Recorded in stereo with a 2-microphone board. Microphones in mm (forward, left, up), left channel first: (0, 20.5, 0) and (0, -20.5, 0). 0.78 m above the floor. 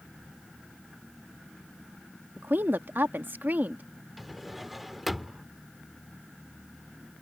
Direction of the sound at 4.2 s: 5° right (ahead or behind).